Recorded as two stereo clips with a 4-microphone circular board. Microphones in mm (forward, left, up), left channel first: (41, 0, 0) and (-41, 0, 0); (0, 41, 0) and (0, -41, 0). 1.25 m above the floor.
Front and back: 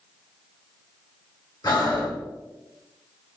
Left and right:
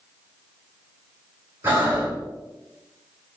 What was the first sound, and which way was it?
Breathing, 30° right.